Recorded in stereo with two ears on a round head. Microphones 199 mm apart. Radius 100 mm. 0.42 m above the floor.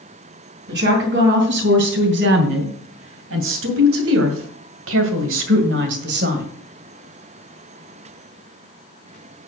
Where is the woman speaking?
55° right (ahead or behind), 4 m; by 6.5 s 45° right (ahead or behind), 2 m.